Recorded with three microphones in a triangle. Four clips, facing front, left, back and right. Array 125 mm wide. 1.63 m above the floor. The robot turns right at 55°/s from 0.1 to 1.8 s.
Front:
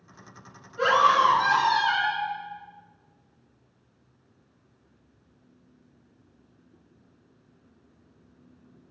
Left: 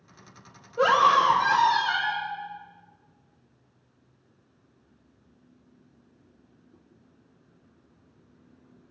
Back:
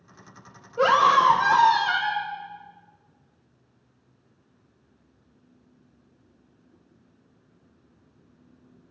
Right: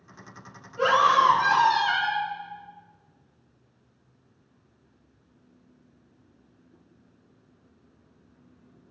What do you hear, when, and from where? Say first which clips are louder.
0.8 s a scream: even, back 2 dB; 140° left, 1.6 m; by 2.3 s 165° right, 1.6 m